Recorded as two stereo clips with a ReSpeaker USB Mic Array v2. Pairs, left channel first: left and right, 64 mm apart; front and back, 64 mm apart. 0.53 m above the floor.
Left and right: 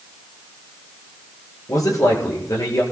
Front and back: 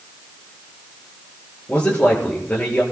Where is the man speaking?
70° left, 8.5 m.